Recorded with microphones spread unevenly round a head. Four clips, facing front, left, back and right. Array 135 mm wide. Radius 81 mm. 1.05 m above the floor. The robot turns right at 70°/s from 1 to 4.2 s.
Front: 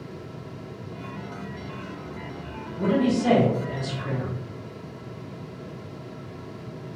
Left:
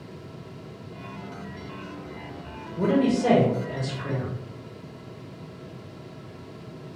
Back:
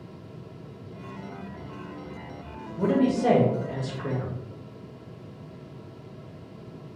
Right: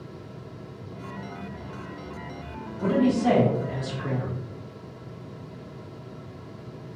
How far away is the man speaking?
About 0.7 m.